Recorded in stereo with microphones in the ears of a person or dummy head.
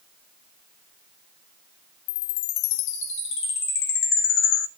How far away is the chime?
About 0.5 m.